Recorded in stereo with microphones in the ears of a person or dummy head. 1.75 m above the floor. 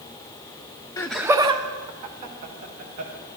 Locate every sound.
1.0 s laughter: 15° left (ahead or behind), 0.5 m; by 3.1 s 50° right (ahead or behind), 2.5 m